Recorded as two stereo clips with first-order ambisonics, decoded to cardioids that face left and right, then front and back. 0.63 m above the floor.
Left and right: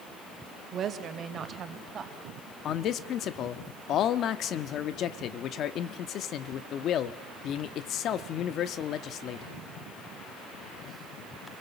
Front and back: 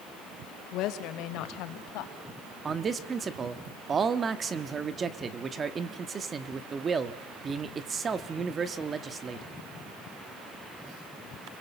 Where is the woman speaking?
35° right, 2 m; by 2.1 s 25° right, 3.5 m.